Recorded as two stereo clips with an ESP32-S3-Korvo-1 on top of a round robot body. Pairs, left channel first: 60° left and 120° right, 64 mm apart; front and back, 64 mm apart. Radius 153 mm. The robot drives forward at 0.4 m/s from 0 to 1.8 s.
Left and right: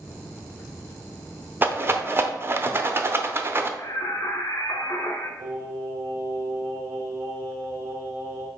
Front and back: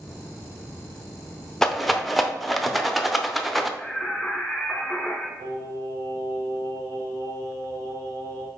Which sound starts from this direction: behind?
Singing, at 5.4 s.